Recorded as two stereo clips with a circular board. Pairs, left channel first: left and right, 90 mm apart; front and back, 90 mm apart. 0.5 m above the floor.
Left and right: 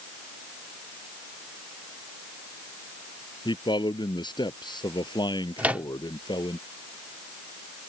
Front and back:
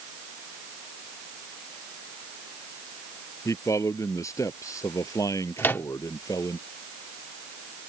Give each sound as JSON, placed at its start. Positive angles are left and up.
{"t": 3.5, "sound": "a man speaking", "azimuth_deg": 55}
{"t": 5.6, "sound": "a microwave", "azimuth_deg": -35}